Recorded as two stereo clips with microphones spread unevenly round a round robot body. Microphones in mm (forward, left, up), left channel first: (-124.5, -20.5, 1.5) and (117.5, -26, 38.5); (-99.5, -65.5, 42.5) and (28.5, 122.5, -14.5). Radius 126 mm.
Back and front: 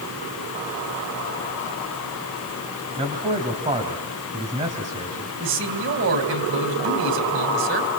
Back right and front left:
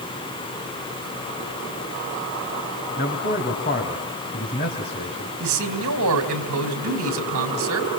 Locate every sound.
3.0 s a man speaking: 65° right, 4.5 m
5.4 s a man speaking: 45° left, 4 m